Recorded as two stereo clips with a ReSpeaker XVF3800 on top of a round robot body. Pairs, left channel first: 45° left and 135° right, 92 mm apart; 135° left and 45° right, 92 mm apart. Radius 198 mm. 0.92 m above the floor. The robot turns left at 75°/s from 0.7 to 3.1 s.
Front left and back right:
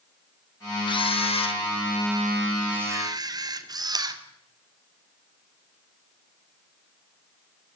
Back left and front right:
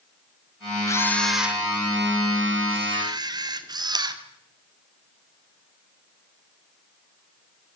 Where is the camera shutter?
80° left, 2.5 m; by 4.2 s 90° right, 2.5 m.